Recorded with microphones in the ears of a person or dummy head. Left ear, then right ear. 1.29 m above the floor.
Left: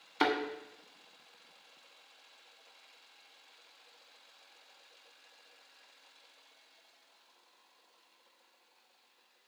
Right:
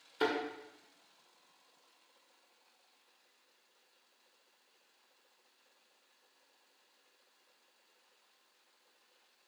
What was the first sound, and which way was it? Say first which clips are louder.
A thud: left 3 dB; 50° left (ahead or behind).